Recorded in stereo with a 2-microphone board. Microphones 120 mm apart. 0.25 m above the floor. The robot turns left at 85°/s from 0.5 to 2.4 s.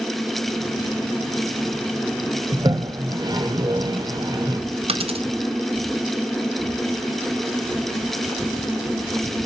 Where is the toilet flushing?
35° right (ahead or behind), 1.5 m.